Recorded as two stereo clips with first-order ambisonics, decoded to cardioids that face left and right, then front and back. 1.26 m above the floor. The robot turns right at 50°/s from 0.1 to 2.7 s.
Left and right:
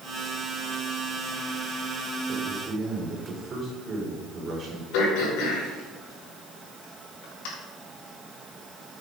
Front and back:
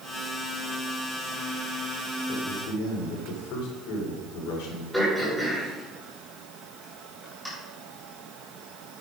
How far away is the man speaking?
About 3.5 m.